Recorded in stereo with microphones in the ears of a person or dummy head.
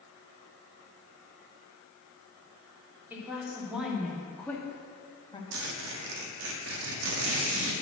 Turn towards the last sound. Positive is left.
turn(degrees=-80)